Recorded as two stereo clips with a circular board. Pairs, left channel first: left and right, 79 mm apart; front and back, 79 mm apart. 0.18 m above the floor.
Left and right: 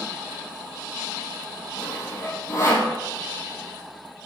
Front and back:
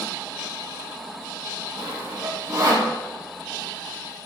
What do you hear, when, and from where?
1.8 s sawing: 140° left, 3 m